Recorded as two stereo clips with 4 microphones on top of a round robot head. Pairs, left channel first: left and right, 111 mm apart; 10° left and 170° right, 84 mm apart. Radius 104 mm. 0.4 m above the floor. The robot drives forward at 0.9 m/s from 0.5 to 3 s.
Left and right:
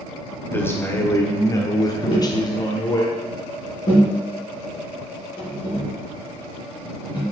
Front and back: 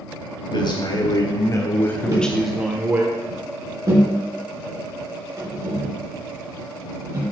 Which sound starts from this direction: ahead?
A man speaking, at 0.5 s.